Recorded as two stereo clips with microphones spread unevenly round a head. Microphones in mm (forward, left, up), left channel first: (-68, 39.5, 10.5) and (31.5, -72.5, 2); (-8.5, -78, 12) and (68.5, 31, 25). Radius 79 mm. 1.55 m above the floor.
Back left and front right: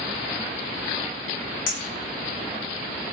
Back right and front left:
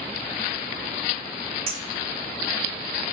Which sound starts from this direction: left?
A clink, at 1.7 s.